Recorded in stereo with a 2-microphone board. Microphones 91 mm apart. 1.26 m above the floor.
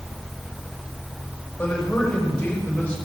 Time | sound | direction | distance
1.6 | a man speaking | 15° left (ahead or behind) | 7 m